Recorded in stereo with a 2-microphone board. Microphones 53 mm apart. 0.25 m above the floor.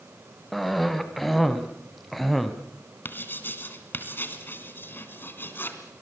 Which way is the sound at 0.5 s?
Centre (ahead or behind).